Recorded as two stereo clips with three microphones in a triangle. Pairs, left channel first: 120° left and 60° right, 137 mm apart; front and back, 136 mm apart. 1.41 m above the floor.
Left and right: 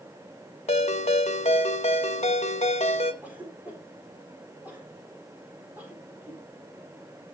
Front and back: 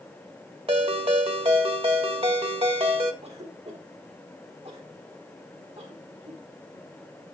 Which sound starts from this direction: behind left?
A ringtone, at 0.7 s.